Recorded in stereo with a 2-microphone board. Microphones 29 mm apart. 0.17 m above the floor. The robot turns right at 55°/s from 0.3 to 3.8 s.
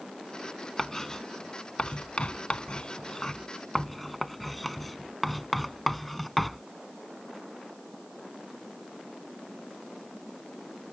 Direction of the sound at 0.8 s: 5° left (ahead or behind).